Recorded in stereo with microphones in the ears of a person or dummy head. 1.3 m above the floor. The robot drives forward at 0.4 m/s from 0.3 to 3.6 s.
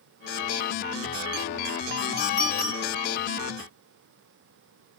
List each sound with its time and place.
2.2 s a clink: 30° left (ahead or behind), 2.5 m